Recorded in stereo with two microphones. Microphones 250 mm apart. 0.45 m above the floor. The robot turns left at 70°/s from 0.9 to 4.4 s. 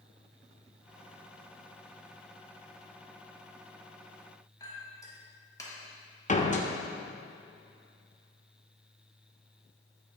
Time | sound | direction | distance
4.6 | a clink | 15° left (ahead or behind) | 1.6 m
6.3 | a door slam | 30° left (ahead or behind) | 0.7 m